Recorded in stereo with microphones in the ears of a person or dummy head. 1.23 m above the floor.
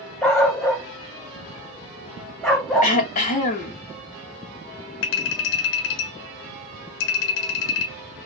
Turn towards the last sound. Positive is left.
turn(degrees=70)  # may be behind; listen again after turning